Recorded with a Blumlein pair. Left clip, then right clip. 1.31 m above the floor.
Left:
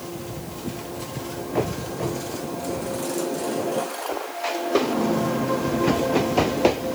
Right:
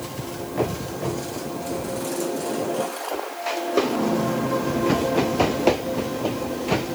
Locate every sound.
Only background noise.